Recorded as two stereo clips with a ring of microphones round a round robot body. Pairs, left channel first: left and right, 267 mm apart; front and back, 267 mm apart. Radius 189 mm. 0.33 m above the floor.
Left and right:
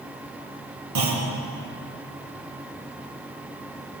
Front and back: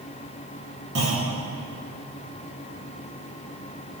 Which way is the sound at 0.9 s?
120° right.